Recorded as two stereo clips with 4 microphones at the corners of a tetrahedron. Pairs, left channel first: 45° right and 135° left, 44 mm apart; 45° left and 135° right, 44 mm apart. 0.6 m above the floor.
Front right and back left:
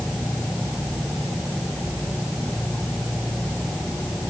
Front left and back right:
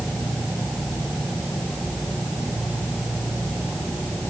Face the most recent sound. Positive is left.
No sound to turn to.